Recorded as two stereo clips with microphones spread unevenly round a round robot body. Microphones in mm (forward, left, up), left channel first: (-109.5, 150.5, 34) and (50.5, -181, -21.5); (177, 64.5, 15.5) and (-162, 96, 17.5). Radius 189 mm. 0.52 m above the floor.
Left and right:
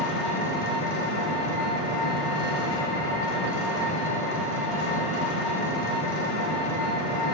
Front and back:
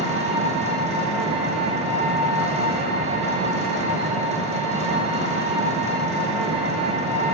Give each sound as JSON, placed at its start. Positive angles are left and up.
{"t": 0.0, "sound": "an engine running", "azimuth_deg": 100, "distance_m": 0.7}